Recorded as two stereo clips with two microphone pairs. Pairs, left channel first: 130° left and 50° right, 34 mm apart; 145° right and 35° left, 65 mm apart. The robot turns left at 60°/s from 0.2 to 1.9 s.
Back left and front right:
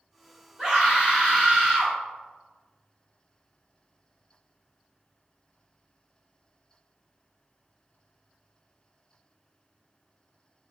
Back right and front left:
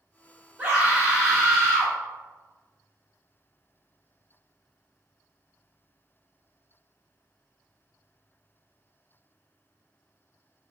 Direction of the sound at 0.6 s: 10° right.